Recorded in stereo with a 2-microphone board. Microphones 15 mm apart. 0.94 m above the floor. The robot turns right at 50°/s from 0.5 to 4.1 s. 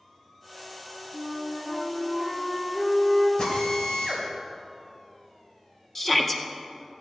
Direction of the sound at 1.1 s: 35° right.